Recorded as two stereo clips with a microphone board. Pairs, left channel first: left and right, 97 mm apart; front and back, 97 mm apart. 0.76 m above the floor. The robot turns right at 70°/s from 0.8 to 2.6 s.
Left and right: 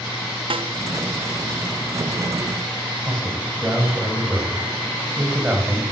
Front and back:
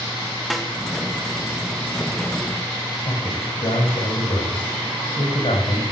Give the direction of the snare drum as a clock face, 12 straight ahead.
3 o'clock.